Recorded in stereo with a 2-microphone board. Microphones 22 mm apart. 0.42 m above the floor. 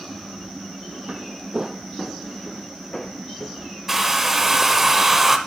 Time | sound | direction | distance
1.1 | footsteps | 65° right (ahead or behind) | 0.8 m
3.9 | a hair dryer | 10° right (ahead or behind) | 1.0 m